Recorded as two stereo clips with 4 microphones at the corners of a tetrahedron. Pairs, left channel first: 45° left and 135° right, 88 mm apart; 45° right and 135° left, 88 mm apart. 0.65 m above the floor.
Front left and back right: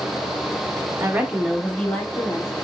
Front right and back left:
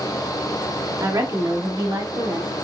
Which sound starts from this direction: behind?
A woman speaking, at 1.0 s.